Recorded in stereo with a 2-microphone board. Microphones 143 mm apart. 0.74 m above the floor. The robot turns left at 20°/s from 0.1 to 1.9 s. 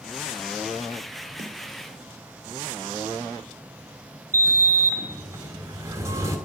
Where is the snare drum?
60° right (ahead or behind), 1.6 m; by 1.6 s 55° right (ahead or behind), 1.6 m.